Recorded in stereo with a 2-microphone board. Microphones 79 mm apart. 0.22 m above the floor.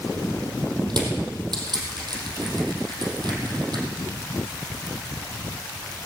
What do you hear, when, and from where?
0.9 s crushing: 65° right (ahead or behind), 3.5 m